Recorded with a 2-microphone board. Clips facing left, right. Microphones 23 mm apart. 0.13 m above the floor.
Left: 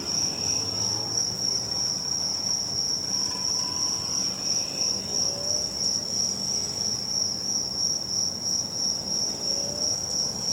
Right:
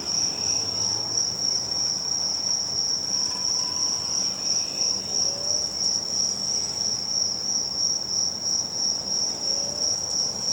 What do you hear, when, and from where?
0.0 s an insect: 10° right (ahead or behind)